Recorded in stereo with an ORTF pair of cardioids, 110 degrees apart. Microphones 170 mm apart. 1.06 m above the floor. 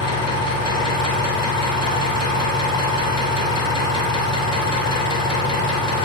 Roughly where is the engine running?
Ahead left.